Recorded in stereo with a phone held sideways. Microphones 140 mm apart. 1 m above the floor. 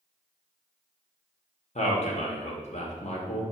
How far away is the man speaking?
About 0.8 m.